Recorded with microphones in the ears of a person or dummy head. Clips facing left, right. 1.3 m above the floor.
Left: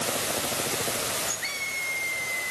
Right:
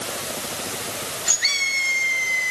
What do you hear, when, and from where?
Only background noise.